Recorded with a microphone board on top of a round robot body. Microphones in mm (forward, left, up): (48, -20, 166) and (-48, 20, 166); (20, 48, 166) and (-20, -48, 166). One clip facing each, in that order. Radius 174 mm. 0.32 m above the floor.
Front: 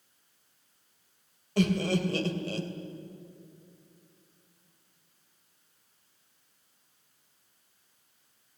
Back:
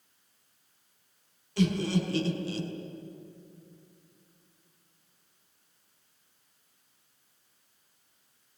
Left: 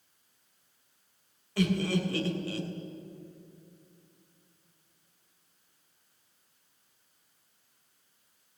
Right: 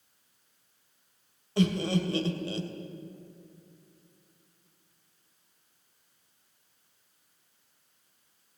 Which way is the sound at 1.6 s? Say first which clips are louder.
Front 1 dB, right 1 dB; 50° right.